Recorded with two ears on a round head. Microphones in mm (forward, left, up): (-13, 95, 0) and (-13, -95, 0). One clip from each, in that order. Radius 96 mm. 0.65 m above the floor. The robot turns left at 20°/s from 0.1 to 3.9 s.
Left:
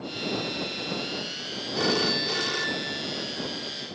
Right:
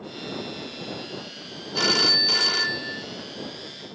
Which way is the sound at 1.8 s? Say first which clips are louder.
Right 6 dB; 45° right (ahead or behind).